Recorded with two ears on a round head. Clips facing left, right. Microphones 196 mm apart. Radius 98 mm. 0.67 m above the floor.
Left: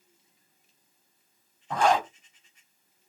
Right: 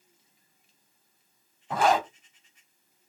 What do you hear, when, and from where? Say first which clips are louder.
1.7 s a zipper: even; 5° right (ahead or behind), 0.8 m